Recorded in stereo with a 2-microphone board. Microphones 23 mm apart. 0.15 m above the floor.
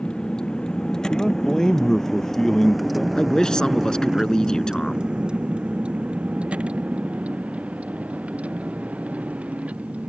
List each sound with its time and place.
0.0 s a vehicle: 40° left (ahead or behind); by 10.1 s 80° right
1.1 s a man speaking: 25° left (ahead or behind)
3.1 s a man speaking: 30° left (ahead or behind)